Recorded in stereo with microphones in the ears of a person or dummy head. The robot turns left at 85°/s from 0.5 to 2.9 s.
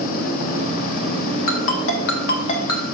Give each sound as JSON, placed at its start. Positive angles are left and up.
{"t": 1.5, "sound": "a ringtone", "side_deg": 45, "distance_m": 1.2}